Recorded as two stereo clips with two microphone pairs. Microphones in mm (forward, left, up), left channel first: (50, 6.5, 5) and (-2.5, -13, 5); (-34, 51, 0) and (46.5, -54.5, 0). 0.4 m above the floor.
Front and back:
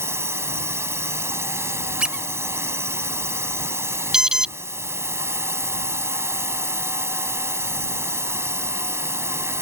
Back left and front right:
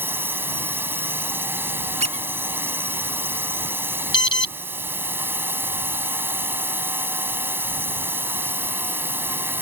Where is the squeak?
85° right.